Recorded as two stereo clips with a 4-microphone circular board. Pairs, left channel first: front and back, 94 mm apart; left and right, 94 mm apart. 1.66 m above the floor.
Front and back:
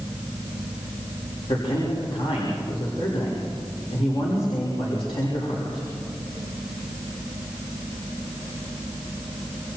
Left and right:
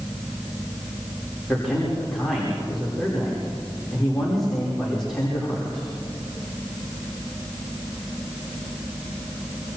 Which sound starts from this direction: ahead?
A man speaking, at 1.5 s.